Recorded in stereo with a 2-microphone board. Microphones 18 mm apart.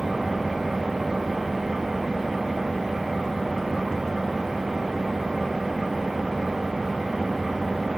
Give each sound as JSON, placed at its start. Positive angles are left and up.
{"t": 0.0, "sound": "an engine running", "side_deg": -15, "distance_m": 5.5}